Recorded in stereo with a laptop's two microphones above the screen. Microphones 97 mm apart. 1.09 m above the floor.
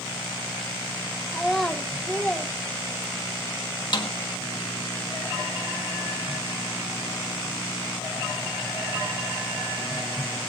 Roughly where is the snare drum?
Left.